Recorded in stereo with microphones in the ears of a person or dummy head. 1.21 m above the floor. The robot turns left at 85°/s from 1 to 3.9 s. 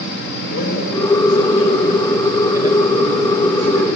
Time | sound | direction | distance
0.5 | a man speaking | 120° left | 5 m